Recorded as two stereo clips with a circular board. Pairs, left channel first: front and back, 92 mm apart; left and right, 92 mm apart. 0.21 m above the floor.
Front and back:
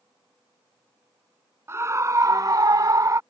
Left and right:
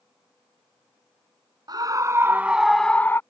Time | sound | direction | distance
1.7 | a scream | 125° right | ?